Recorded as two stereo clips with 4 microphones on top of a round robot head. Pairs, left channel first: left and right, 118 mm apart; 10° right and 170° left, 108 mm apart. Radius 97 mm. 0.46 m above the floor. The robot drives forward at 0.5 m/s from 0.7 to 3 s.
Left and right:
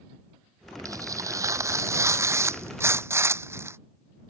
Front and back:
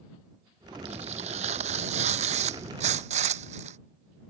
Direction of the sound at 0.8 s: 150° right.